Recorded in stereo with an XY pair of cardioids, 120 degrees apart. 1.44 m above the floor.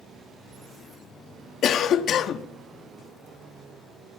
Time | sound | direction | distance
1.6 | a cough | 55° left | 0.7 m